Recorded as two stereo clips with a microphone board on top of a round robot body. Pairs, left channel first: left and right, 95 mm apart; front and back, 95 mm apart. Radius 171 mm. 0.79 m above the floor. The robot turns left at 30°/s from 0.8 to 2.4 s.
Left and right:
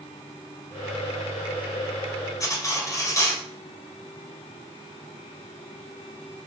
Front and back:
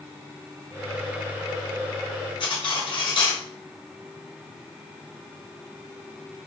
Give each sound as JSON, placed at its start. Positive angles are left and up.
{"t": 2.4, "sound": "cutlery clinking", "azimuth_deg": 35, "distance_m": 1.1}